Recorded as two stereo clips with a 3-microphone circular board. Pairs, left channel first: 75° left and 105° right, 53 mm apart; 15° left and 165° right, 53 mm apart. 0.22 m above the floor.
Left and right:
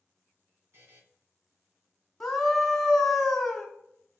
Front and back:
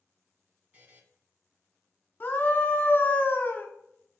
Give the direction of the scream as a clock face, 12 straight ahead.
12 o'clock.